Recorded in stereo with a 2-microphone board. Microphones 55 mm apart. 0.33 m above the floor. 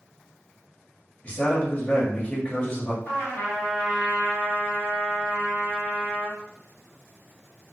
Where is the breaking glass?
I don't hear breaking glass.